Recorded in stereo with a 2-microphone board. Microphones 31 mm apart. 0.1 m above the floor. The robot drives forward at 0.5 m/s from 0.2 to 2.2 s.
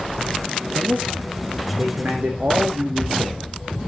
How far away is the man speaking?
About 5.5 m.